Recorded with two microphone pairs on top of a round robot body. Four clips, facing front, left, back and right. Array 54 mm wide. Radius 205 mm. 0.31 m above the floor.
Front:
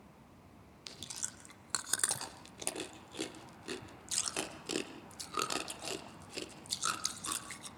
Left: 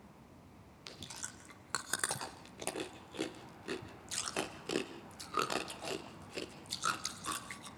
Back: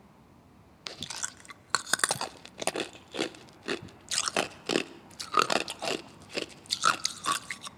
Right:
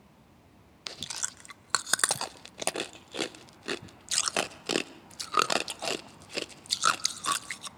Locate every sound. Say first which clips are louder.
0.9 s chewing: right 9 dB, back 10 dB; 135° right, 0.7 m